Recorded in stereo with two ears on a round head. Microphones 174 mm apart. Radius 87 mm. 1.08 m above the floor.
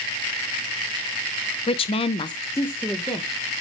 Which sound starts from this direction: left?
A woman speaking, at 1.7 s.